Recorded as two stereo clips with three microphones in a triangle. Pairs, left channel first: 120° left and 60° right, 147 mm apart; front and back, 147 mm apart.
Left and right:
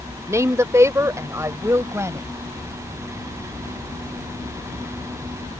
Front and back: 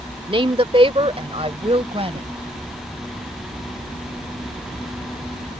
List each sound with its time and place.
0.3 s a woman speaking: 130° right